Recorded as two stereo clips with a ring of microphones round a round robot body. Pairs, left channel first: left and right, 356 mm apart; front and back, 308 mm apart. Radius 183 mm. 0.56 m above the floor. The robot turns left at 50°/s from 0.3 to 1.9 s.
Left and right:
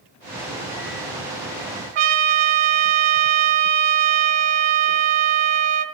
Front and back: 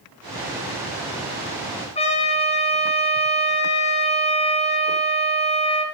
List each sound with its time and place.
1.9 s a trumpet: 75° right, 2.5 m